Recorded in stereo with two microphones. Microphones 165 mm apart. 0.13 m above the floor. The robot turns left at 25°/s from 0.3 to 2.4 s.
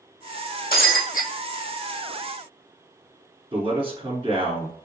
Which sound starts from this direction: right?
A man speaking, at 3.5 s.